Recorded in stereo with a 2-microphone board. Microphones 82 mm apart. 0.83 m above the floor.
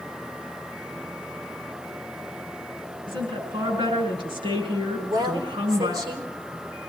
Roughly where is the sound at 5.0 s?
Right.